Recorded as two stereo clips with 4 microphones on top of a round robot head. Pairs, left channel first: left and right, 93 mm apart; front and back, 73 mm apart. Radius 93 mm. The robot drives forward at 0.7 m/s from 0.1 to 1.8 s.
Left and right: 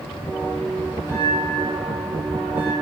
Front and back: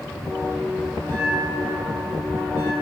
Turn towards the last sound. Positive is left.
turn(degrees=-155)